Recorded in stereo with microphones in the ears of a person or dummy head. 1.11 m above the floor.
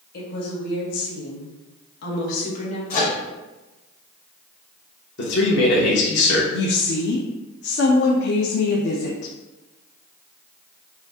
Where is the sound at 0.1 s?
50° left (ahead or behind), 1.6 m; by 2.8 s 40° left (ahead or behind), 1.3 m.